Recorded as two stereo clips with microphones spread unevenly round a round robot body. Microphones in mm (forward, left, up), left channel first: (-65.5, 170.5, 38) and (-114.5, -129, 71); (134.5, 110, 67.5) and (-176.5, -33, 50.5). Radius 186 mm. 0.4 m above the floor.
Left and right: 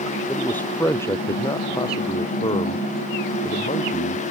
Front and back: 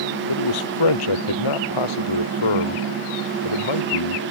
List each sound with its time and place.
0.3 s a man speaking: 5° right; by 4.2 s 10° left